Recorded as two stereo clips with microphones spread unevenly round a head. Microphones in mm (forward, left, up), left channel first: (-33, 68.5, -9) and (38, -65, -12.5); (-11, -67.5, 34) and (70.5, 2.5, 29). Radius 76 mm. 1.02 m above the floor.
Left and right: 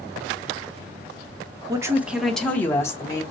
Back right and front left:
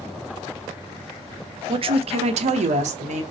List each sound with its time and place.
1.7 s a woman speaking: 5° left, 0.6 m; by 3.2 s 50° left, 1.1 m